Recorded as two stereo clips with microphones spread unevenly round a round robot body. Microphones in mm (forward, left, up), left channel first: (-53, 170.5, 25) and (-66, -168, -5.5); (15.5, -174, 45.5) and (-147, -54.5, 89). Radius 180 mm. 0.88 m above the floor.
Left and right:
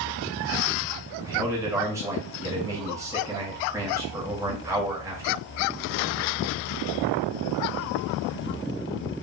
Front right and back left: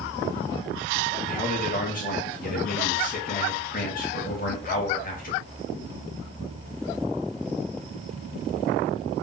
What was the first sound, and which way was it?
A man speaking, 15° right.